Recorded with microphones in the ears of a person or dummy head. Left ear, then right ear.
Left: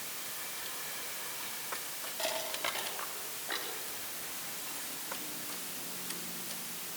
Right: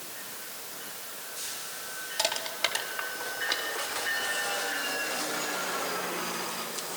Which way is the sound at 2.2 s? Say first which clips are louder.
Right 6 dB; 50° right (ahead or behind).